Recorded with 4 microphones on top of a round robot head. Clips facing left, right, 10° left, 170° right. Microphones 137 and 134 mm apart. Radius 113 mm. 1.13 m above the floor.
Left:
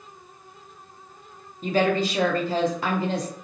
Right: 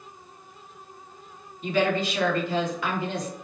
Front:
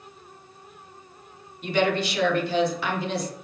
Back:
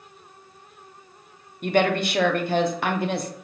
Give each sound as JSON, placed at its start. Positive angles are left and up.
{"t": 1.6, "sound": "a woman speaking", "azimuth_deg": 145, "distance_m": 0.6}